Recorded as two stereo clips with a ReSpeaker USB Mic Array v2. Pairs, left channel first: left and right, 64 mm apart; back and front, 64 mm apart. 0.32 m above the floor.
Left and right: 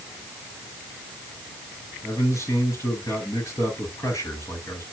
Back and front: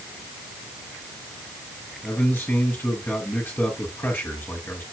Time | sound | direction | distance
2.0 | a man speaking | 130° left | 5.5 m